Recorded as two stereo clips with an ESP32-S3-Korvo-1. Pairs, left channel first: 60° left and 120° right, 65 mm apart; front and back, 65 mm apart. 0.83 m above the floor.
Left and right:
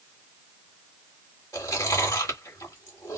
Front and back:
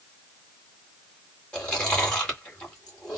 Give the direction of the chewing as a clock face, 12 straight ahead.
10 o'clock.